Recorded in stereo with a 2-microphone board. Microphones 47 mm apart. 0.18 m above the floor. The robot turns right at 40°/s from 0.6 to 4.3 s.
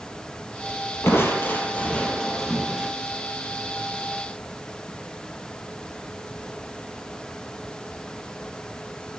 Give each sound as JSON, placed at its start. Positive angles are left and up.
{"t": 1.0, "sound": "crushing", "azimuth_deg": 115, "distance_m": 2.5}